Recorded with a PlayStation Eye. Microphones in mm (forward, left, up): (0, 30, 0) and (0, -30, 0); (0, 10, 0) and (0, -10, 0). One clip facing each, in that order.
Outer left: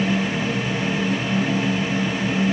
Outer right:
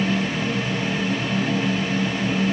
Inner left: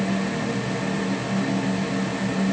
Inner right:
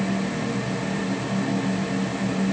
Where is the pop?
No pop in this recording.